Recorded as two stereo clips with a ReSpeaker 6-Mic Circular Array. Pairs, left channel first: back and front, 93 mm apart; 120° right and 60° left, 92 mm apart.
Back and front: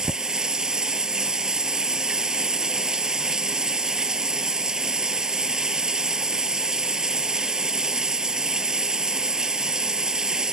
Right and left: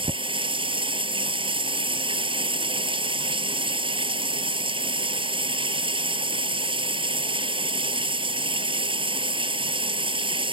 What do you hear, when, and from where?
0.0 s running water: 85° left